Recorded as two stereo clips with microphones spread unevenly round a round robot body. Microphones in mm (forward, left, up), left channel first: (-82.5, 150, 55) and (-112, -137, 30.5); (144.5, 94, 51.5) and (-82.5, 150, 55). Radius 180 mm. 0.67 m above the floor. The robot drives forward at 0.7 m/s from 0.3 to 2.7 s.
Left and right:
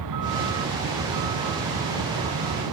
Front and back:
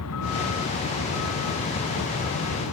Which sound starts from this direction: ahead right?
A vehicle, at 0.0 s.